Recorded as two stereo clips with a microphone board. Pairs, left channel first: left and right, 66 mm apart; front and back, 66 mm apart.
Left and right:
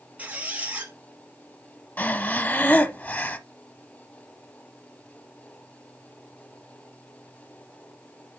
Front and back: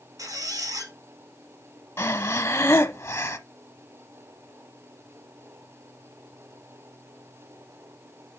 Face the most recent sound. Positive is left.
turn(degrees=35)